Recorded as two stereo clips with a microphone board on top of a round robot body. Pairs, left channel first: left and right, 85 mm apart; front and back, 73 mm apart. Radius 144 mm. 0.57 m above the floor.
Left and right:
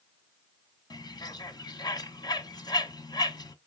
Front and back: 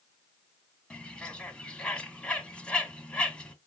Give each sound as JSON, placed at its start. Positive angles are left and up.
{"t": 0.9, "sound": "a bird", "azimuth_deg": 75, "distance_m": 1.0}